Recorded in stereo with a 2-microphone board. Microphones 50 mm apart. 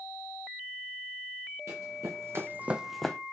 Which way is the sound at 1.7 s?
80° right.